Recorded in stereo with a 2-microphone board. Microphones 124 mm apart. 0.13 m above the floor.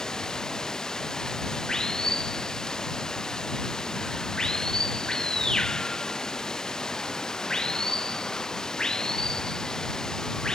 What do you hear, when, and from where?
0.0 s running water: 5° left (ahead or behind)